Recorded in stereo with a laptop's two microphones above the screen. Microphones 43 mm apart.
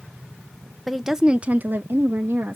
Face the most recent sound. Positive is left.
turn(degrees=-70)  # may be behind; listen again after turning